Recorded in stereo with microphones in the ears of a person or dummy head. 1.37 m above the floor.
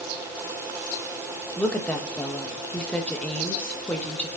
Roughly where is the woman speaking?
Centre.